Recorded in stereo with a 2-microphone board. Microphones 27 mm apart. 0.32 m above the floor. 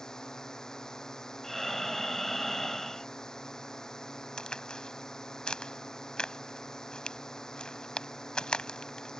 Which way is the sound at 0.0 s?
20° left (ahead or behind).